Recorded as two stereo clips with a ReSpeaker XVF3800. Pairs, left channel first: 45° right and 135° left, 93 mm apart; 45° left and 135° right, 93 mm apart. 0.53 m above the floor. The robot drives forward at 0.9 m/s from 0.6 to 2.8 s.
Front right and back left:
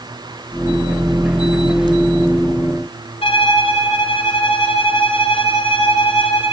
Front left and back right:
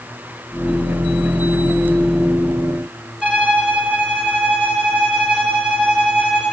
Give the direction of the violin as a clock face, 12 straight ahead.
2 o'clock.